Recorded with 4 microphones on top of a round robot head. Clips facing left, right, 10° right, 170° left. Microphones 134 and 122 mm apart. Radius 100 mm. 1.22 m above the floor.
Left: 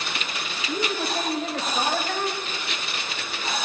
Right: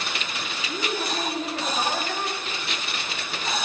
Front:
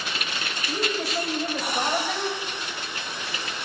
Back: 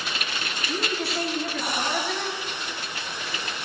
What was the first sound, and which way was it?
A woman speaking, 35° left.